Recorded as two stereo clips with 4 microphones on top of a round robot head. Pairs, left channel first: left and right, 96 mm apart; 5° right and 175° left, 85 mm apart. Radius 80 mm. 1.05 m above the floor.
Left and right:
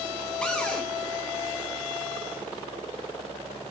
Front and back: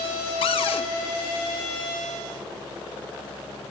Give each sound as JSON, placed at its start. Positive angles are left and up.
{"t": 0.4, "sound": "a cupboard door", "azimuth_deg": 5, "distance_m": 0.7}